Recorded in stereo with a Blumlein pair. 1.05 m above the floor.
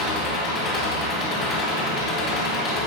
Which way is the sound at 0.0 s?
25° left.